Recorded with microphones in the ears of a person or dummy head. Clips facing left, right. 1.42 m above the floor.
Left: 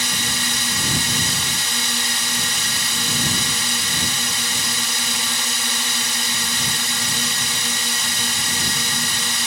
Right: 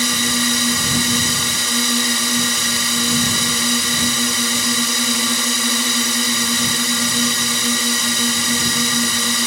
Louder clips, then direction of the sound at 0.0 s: Right 8 dB; 70° right (ahead or behind).